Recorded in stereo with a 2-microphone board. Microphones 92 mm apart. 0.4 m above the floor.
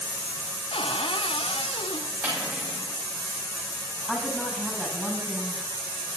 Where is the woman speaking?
Centre (ahead or behind), 5 m.